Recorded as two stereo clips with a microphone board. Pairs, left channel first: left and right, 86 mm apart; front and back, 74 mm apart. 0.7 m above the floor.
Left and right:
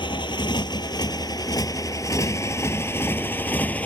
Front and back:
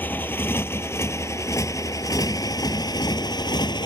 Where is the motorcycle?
65° left; by 3.9 s 15° left.